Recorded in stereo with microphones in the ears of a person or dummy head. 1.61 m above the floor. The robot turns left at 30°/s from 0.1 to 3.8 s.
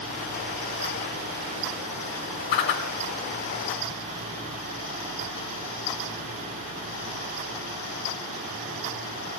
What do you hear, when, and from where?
2.5 s a whoosh: 55° left (ahead or behind), 2 m; by 2.8 s 50° left (ahead or behind), 2 m